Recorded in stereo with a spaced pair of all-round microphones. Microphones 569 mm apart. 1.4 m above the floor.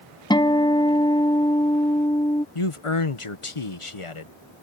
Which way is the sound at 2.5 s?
60° left (ahead or behind).